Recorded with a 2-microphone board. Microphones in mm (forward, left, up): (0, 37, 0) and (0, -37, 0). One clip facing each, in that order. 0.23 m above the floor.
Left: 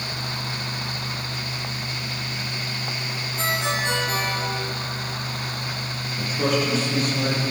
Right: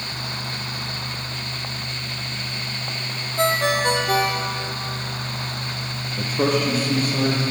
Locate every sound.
3.4 s a ringtone: 60° right (ahead or behind), 3.5 m
6.2 s a man speaking: 40° right (ahead or behind), 6.5 m